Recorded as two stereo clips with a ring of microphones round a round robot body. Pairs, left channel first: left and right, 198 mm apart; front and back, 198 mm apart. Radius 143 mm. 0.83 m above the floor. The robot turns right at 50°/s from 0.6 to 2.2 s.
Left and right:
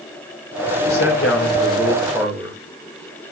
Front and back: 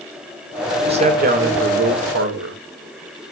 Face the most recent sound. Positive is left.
turn(degrees=-175)